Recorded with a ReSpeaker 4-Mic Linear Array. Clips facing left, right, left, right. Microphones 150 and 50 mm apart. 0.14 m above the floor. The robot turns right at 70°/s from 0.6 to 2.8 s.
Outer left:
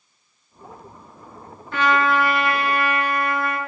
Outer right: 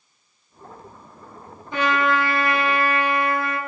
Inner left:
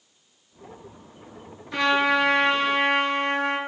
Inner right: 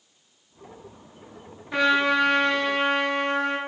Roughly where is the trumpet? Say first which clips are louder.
Outer left 1 dB, even; ahead.